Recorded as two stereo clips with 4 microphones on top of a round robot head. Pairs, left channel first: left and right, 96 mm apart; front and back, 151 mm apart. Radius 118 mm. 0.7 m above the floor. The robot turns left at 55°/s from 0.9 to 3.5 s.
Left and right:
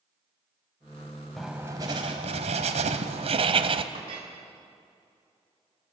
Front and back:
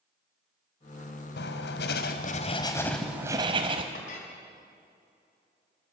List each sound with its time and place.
1.4 s writing: straight ahead, 1.5 m; by 3.8 s 115° right, 1.5 m
3.9 s a clink: 45° right, 4.5 m